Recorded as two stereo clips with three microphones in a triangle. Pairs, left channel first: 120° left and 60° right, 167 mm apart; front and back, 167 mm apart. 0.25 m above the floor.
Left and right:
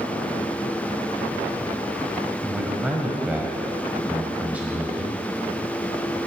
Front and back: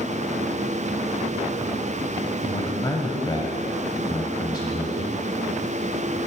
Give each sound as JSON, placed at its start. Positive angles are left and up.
{"t": 2.4, "sound": "a man speaking", "azimuth_deg": 10, "distance_m": 1.5}